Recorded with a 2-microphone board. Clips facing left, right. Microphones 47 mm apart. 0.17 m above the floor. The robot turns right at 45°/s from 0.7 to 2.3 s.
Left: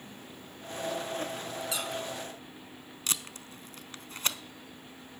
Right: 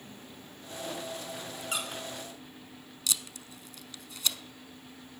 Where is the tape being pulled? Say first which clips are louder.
Even; 45° left (ahead or behind), 0.6 m.